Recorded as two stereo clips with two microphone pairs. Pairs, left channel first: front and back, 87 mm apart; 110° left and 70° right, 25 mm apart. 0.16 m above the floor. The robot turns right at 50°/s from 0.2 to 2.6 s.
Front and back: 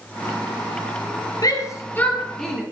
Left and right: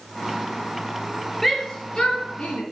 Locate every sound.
1.4 s a shout: 35° left, 4 m; by 2.6 s 95° left, 4 m